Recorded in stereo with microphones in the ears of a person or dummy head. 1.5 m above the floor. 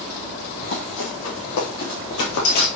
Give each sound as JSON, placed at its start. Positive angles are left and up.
{"t": 0.6, "sound": "running footsteps", "side_deg": 55, "distance_m": 4.5}